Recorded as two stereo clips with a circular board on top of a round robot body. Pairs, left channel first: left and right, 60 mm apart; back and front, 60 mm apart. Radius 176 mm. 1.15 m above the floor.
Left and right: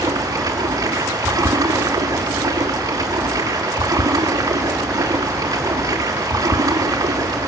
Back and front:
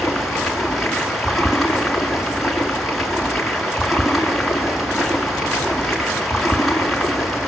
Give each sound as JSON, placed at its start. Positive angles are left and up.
{"t": 0.0, "sound": "running water", "azimuth_deg": -90, "distance_m": 1.8}